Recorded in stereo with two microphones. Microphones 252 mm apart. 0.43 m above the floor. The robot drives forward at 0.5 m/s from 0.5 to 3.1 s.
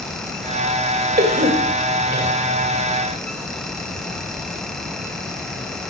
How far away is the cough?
About 2.0 m.